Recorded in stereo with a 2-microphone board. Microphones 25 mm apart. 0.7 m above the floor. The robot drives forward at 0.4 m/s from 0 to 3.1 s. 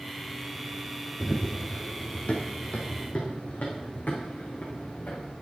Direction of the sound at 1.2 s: 20° left (ahead or behind).